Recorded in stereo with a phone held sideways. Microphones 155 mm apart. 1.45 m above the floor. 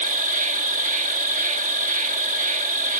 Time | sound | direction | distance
0.0 | an insect | 55° right (ahead or behind) | ?